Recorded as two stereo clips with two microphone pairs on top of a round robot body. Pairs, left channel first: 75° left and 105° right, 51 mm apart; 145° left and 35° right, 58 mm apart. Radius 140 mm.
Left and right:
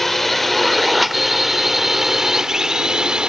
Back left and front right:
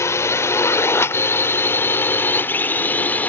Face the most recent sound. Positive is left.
turn(degrees=-165)